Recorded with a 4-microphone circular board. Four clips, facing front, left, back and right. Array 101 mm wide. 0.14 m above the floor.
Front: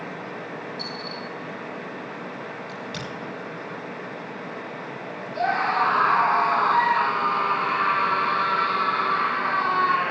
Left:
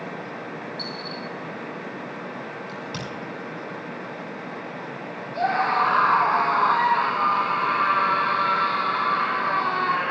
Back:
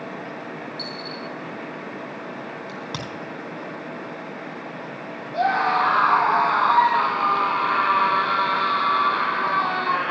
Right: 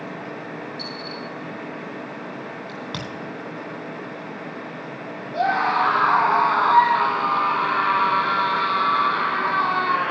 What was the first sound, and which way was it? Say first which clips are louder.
A dropped coin: right 1 dB, back 1 dB; 115° right.